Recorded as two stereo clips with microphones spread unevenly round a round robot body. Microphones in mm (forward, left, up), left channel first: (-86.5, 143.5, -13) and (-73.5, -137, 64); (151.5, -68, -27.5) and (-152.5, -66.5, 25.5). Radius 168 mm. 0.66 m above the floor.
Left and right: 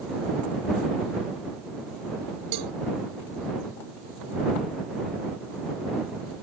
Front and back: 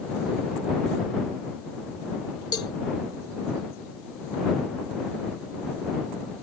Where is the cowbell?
75° right.